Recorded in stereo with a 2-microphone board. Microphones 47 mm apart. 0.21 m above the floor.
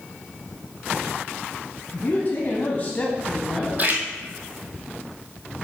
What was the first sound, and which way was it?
A man speaking, 45° left (ahead or behind).